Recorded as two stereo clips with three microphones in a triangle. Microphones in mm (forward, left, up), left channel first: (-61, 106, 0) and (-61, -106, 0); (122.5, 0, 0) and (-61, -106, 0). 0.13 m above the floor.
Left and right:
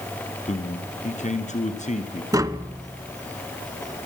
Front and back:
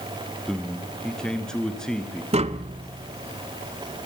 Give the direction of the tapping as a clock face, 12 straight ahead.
5 o'clock.